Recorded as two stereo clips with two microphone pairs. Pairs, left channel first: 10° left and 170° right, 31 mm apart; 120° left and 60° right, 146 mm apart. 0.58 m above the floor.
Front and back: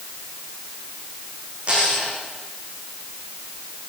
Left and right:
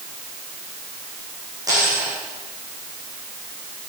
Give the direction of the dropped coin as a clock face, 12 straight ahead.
4 o'clock.